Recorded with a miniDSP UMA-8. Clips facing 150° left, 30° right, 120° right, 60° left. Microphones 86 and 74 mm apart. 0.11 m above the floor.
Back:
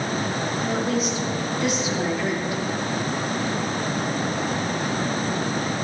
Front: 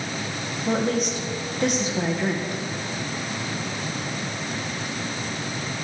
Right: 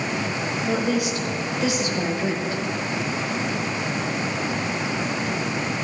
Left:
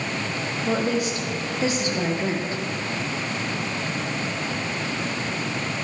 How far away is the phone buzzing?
I don't hear a phone buzzing.